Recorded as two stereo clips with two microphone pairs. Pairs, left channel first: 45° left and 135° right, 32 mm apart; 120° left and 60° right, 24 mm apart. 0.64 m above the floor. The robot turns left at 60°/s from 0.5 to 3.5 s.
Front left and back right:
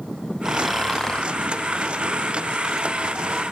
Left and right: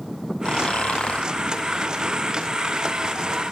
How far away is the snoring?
About 0.6 m.